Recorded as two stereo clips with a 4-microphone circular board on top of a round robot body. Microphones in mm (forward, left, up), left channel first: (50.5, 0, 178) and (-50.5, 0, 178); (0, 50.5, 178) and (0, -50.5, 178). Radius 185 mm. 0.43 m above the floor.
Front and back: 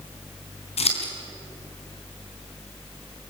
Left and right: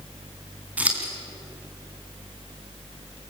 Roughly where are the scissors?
Ahead.